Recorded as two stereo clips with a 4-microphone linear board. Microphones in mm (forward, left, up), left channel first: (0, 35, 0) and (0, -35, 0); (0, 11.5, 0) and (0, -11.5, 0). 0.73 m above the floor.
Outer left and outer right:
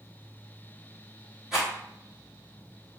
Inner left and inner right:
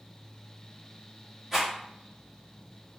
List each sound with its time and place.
1.5 s a rattle: 10° right (ahead or behind), 1.2 m